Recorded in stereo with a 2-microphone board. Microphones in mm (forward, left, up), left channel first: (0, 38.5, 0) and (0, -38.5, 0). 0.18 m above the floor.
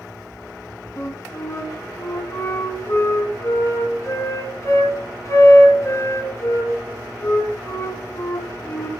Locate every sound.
1.0 s a flute: 40° left (ahead or behind), 2 m